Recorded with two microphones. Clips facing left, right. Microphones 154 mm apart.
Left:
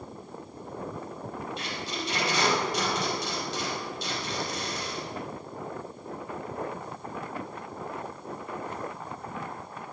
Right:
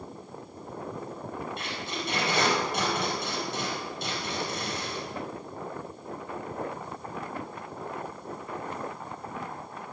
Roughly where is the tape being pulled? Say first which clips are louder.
Even; right.